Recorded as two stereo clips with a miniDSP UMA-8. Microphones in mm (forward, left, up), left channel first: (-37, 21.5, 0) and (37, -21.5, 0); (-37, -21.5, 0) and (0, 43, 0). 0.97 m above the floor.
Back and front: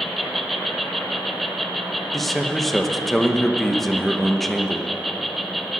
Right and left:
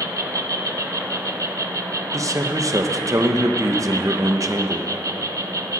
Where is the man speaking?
65° left, 0.9 m.